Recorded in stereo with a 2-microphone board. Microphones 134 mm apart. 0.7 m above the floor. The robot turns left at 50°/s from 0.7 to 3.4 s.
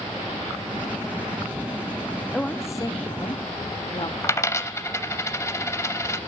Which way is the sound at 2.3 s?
165° left.